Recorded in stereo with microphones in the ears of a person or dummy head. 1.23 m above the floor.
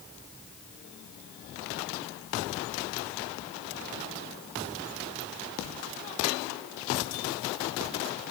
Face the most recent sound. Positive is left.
No sound to turn to.